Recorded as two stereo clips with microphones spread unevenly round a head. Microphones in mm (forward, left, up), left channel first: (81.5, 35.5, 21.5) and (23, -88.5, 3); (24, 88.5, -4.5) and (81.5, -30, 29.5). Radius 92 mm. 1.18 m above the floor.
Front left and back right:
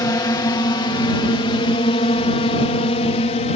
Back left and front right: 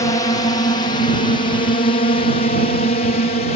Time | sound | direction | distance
0.0 | a drone | 125° left | ?